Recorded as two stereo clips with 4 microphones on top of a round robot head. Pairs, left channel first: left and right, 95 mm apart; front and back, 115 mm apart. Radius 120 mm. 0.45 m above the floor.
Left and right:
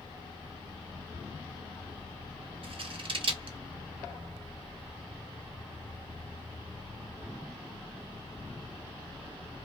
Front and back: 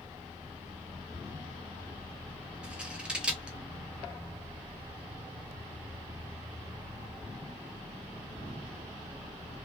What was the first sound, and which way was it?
Scissors, 100° right.